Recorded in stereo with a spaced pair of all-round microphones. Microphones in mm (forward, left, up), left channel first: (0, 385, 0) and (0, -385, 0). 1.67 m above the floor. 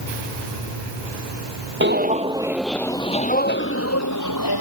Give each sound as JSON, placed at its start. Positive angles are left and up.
{"t": 1.8, "sound": "footsteps", "side_deg": -15}